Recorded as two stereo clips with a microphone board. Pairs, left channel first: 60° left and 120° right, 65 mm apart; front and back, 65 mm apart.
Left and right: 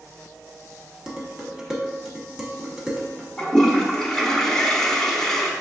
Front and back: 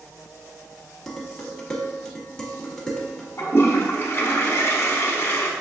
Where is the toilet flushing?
15° right, 0.8 m.